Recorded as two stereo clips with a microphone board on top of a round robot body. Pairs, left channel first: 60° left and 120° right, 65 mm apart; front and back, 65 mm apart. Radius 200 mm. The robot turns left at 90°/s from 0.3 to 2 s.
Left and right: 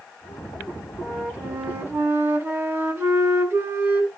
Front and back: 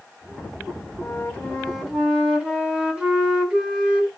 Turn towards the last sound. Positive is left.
turn(degrees=-110)